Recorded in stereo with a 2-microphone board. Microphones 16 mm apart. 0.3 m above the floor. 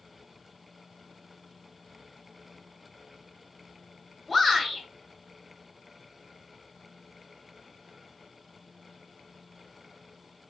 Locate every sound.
4.3 s a shout: 10° left (ahead or behind), 1.7 m